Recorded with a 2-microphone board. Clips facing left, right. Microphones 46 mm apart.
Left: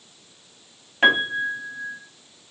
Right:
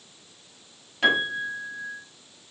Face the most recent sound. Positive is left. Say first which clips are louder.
# left 4 dB
turn(degrees=35)  # may be behind; listen again after turning